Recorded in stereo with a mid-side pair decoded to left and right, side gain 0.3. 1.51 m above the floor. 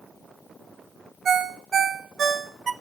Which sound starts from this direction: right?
A ringtone, at 1.2 s.